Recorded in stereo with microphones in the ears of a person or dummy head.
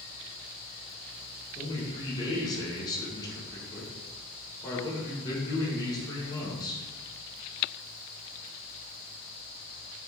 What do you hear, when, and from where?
1.6 s a man speaking: 25° left (ahead or behind), 0.9 m